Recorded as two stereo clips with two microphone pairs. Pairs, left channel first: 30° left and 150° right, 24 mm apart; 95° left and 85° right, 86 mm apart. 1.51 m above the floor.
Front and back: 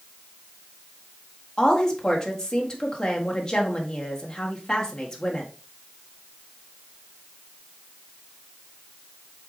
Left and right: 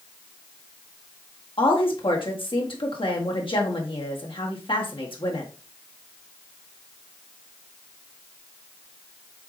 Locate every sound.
1.6 s a woman speaking: 90° left, 1.6 m